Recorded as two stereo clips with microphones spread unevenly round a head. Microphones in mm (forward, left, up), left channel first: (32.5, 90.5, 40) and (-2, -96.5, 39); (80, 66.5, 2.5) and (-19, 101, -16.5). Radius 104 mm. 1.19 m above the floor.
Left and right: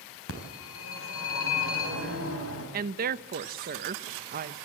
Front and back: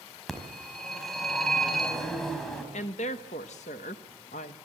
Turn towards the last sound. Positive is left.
turn(degrees=-55)